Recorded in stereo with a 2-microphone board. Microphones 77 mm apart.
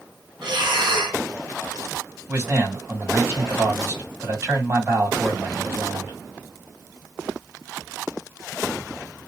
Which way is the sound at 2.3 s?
35° right (ahead or behind).